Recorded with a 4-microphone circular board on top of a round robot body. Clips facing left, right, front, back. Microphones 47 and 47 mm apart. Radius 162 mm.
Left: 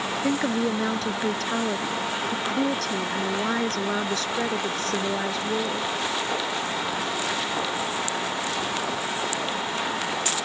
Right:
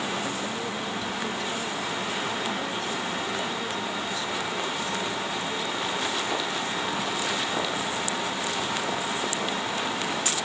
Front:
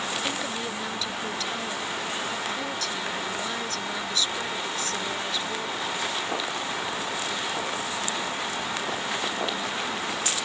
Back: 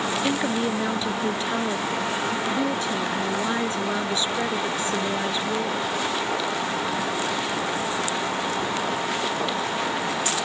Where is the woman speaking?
115° left.